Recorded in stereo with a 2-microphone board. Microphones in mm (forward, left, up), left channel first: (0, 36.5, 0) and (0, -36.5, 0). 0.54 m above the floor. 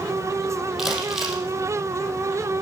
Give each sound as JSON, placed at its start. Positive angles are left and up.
{"t": 0.8, "sound": "crumpling", "side_deg": 0, "distance_m": 4.0}